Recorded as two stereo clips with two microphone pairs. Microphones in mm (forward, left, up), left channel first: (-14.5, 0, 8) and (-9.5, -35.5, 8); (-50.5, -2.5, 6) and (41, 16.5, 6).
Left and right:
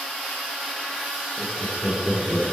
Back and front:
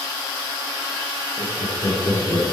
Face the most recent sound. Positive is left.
turn(degrees=160)